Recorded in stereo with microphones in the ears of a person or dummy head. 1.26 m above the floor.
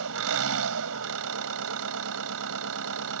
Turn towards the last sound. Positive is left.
turn(degrees=-75)  # may be behind; listen again after turning